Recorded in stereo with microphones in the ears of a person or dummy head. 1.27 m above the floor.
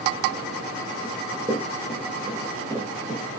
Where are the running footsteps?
15° right (ahead or behind), 4 m.